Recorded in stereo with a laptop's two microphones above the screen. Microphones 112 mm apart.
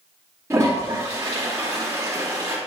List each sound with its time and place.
0.5 s a toilet flushing: 20° right (ahead or behind), 2.0 m